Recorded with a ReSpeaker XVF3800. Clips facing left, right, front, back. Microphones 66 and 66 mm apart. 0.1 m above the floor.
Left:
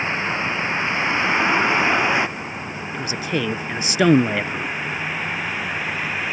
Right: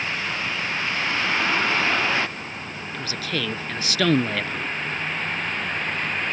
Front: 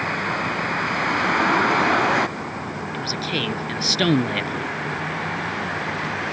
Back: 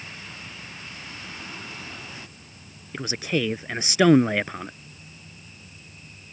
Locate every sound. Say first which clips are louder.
0.0 s a vehicle: left 4 dB, front 18 dB; 25° left; by 6.3 s 10° left
2.9 s a man speaking: left 4 dB, back 2 dB; 135° left